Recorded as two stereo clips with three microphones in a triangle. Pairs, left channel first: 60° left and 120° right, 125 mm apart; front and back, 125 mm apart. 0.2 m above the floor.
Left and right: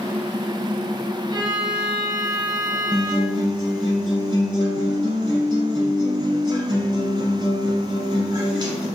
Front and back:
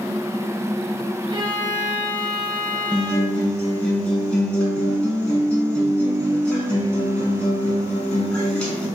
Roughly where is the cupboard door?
No cupboard door in this recording.